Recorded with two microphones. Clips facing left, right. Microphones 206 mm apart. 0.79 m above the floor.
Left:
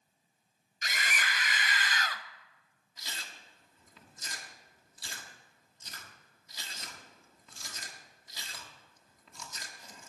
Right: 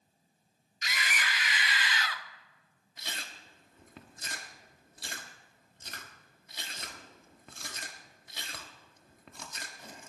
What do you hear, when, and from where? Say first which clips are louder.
0.8 s a scream: even; 45° left (ahead or behind), 1.6 m
3.0 s chewing: right 3 dB; 60° right (ahead or behind), 1.2 m